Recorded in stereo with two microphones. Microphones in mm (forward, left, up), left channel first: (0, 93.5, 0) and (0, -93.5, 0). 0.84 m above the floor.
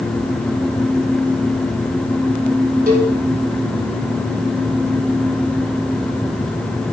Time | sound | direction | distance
2.9 | a cowbell | 55° right (ahead or behind) | 3 m